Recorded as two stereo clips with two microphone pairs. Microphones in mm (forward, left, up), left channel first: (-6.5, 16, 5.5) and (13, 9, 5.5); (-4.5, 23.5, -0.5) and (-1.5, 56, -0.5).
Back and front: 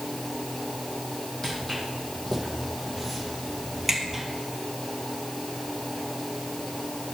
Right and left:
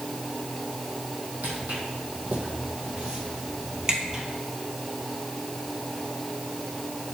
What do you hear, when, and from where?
1.4 s footsteps: 100° left, 3 m; by 4.2 s 55° left, 1.7 m